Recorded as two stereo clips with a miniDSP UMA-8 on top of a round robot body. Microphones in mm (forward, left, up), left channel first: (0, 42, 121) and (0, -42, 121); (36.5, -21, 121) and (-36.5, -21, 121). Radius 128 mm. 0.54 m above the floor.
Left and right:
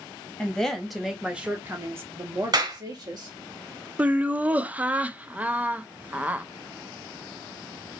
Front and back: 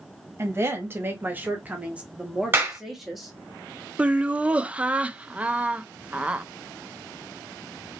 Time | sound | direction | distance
0.4 | a woman speaking | 160° left | 1.4 m
2.5 | a clap | 120° right | 1.9 m
4.0 | laughter | 135° right | 0.6 m